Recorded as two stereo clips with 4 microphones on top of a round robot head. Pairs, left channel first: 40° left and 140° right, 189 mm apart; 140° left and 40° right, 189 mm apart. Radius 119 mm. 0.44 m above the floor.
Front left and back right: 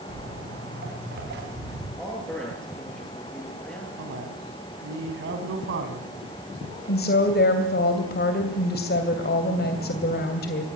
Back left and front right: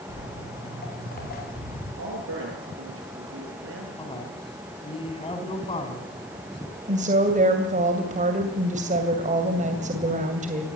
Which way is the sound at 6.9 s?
10° left.